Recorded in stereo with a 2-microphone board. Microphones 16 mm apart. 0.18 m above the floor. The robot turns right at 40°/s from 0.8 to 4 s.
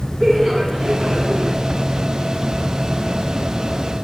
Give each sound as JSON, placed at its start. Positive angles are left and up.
{"t": 0.2, "sound": "laughter", "azimuth_deg": -175, "distance_m": 3.0}